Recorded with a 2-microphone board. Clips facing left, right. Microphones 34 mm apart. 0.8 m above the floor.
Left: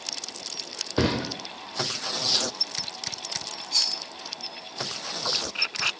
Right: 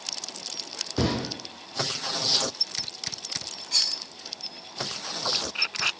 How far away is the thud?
About 0.5 m.